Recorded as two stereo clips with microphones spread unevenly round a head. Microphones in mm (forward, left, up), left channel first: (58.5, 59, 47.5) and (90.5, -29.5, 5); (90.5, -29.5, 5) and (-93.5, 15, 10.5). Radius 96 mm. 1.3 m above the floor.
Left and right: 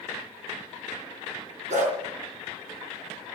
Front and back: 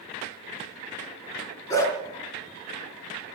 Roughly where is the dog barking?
Right.